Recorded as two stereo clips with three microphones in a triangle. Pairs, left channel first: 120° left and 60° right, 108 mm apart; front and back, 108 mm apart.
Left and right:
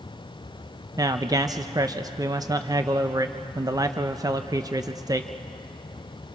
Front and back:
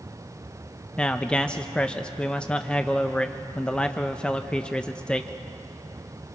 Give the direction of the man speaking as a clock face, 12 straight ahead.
2 o'clock.